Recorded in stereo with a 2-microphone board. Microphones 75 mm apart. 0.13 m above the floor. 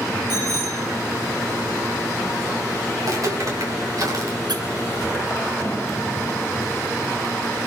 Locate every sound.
0.3 s a bicycle bell: 70° right (ahead or behind), 9 m
3.0 s footsteps: 55° right (ahead or behind), 7 m
4.5 s a squeak: 75° right (ahead or behind), 1.1 m